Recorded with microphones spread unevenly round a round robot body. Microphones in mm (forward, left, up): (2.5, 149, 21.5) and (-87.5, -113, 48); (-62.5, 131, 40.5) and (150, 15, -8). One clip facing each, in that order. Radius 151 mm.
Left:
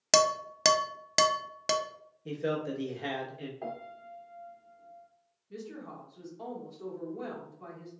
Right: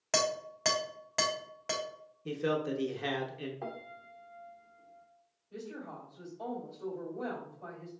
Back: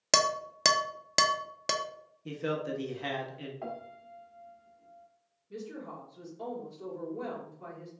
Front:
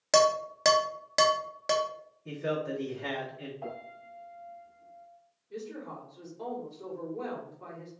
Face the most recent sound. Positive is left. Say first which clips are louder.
# left 1 dB, front 1 dB
turn(degrees=70)